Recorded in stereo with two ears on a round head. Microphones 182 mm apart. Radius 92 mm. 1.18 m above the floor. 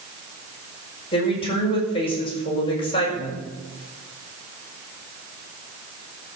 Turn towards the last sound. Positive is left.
turn(degrees=25)  # may be behind; listen again after turning